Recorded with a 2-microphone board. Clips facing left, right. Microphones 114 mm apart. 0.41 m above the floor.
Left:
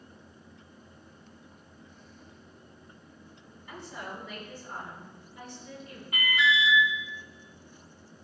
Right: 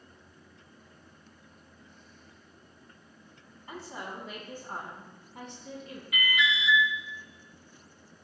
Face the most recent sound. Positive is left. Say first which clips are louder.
# left 3 dB
turn(degrees=40)  # may be behind; listen again after turning